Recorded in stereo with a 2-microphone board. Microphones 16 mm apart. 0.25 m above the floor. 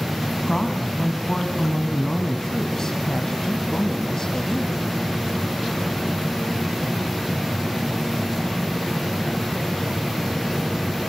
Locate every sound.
0.5 s a woman speaking: 35° left (ahead or behind), 2 m